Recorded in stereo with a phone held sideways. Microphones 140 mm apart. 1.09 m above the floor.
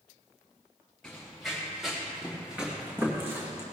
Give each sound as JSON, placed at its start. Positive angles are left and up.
{"t": 1.0, "sound": "running footsteps", "side_deg": 5, "distance_m": 4.5}